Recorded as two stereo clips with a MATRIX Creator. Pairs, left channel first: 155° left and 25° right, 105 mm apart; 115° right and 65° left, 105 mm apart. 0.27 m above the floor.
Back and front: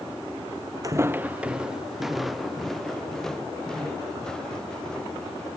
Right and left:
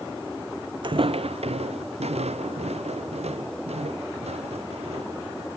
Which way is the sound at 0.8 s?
30° left.